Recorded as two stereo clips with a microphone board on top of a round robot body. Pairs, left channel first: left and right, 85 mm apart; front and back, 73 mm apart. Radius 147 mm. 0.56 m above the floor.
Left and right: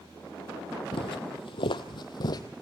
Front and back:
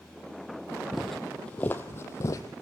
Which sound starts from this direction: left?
Footsteps, at 0.9 s.